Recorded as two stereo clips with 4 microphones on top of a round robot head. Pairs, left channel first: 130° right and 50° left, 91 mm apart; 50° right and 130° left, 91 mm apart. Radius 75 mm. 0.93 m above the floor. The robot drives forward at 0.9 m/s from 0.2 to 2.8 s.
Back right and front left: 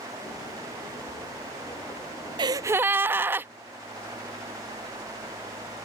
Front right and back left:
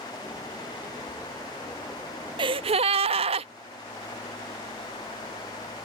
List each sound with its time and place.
2.4 s a gasp: 90° left; by 3.5 s 120° left